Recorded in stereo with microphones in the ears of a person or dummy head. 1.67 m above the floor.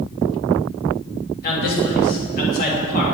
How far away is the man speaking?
About 3 m.